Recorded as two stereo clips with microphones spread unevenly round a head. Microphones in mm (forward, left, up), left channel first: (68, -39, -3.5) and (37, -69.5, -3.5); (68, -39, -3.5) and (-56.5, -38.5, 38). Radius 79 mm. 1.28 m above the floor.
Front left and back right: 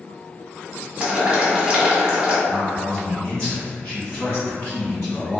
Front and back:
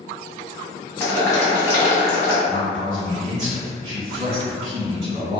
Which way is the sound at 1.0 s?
75° right.